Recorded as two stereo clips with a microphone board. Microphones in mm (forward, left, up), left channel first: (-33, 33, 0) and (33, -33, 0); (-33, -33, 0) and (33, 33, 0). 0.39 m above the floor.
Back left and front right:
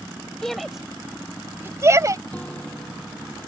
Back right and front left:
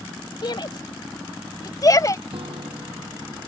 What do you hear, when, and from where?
0.4 s a shout: 145° right; by 2.2 s 90° right
2.3 s a guitar: 60° left